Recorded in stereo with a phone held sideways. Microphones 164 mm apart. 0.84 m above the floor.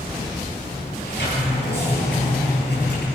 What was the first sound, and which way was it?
A sliding door, 85° left.